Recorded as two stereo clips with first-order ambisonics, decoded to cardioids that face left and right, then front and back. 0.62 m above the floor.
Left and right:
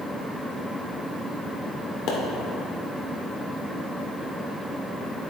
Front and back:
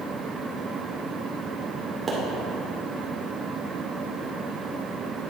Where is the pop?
110° left, 1.9 m.